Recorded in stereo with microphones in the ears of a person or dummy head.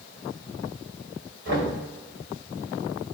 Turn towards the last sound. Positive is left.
turn(degrees=-65)  # may be behind; listen again after turning